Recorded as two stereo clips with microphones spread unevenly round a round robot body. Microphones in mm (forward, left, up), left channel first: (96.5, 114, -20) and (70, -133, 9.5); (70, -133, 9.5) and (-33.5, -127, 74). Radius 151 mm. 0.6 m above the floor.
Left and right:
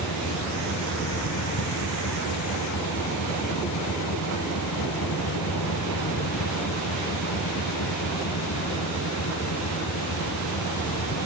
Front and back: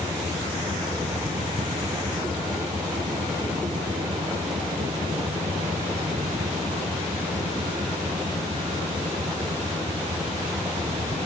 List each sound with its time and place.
0.0 s a vehicle: 120° left